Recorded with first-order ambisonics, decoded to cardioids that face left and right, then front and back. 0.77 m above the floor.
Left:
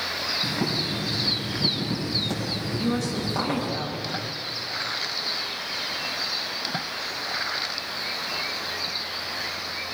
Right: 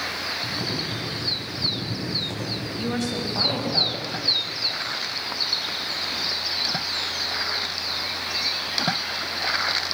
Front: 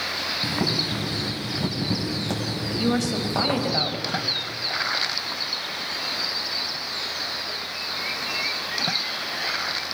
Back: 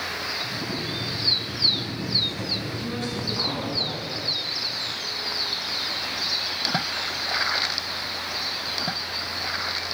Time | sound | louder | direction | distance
0.4 | boiling | left 1 dB, front 5 dB | 10° left | 6 m
2.7 | a woman speaking | right 1 dB, front 6 dB | 20° right | 4 m